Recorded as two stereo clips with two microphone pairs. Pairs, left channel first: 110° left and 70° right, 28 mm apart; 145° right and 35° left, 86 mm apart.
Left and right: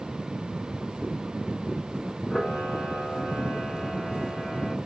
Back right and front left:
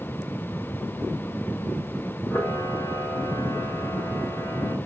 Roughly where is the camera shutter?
Behind.